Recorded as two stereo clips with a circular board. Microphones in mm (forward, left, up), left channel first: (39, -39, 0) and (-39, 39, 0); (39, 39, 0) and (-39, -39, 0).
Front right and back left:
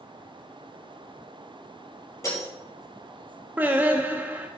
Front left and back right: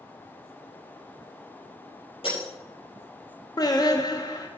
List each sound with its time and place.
2.2 s breaking glass: 15° left, 4.5 m
3.6 s singing: 70° left, 0.9 m